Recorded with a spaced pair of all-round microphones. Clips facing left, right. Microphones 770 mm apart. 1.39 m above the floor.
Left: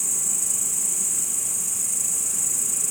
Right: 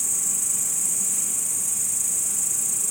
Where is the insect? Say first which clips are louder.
Left 1 dB; 20° right (ahead or behind).